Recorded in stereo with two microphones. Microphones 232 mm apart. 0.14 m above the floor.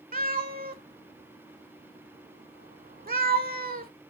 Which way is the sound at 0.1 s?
40° right (ahead or behind).